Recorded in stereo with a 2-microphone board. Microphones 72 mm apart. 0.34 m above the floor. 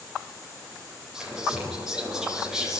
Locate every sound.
1.1 s whispering: 5° right (ahead or behind), 8.5 m